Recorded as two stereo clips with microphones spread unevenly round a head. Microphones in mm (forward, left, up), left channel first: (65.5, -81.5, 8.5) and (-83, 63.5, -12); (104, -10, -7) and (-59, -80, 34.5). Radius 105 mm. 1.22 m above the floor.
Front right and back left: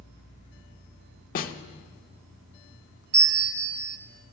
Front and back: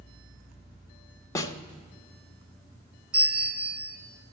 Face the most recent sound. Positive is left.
turn(degrees=115)